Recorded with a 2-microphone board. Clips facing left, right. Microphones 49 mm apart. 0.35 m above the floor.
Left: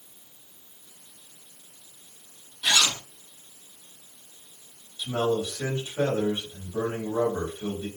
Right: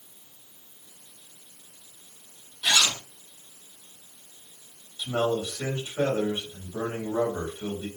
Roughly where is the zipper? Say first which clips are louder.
Even; centre.